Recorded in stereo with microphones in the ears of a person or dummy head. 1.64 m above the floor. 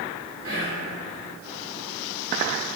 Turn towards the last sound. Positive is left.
turn(degrees=-65)  # may be behind; listen again after turning